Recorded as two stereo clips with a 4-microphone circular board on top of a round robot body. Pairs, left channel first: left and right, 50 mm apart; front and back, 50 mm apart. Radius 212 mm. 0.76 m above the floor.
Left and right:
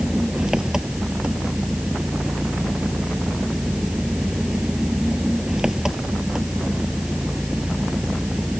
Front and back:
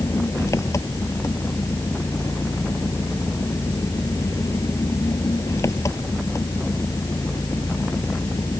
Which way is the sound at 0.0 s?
10° right.